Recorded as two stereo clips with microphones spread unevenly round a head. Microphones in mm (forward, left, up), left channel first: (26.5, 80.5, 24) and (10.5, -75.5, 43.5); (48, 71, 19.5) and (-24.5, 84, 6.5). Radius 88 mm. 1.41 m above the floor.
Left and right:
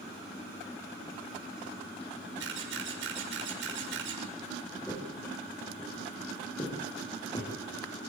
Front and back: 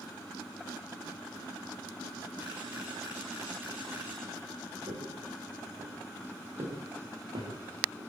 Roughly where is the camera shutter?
Right.